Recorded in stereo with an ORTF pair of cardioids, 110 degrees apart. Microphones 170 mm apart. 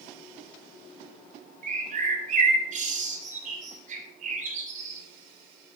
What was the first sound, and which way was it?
A bird, 45° right.